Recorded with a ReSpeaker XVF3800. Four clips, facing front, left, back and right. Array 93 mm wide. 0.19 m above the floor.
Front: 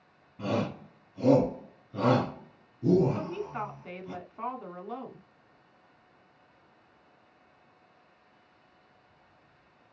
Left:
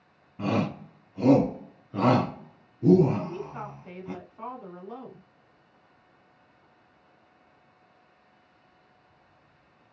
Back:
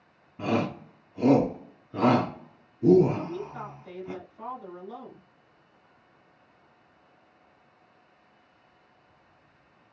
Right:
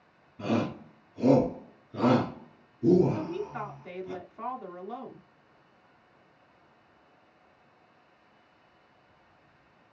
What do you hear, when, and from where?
0.4 s a shout: 130° left, 1.6 m
3.1 s a woman speaking: 15° right, 1.8 m